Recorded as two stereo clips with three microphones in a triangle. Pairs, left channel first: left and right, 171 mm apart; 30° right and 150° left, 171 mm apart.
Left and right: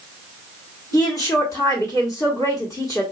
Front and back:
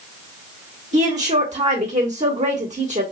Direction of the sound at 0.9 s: 150° left.